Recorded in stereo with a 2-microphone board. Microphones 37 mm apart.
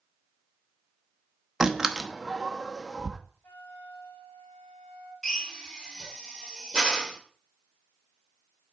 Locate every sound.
1.6 s a door slam: 15° right (ahead or behind), 0.8 m
3.4 s a flute: 50° left (ahead or behind), 2.5 m
5.2 s a drill: 20° left (ahead or behind), 1.7 m